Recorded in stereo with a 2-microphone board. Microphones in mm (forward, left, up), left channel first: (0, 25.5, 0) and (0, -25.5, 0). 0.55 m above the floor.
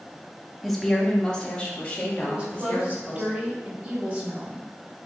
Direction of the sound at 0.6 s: Centre (ahead or behind).